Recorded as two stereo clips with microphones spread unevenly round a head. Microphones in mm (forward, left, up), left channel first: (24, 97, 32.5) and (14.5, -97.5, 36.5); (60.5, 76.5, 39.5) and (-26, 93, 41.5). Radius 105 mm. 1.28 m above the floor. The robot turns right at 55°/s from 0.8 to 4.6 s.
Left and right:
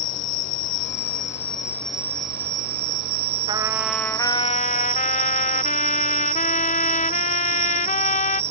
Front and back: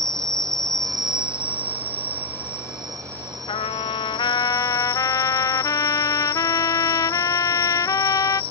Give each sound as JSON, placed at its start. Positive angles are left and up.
{"t": 0.0, "sound": "an insect", "azimuth_deg": 115}
{"t": 3.5, "sound": "a trumpet", "azimuth_deg": -25}